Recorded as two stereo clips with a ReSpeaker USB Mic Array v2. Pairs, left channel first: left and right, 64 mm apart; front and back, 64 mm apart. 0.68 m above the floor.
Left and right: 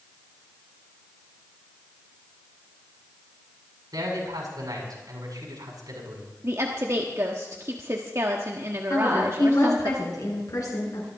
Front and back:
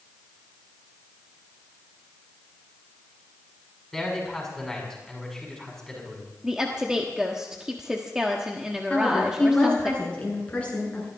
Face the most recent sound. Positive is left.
turn(degrees=70)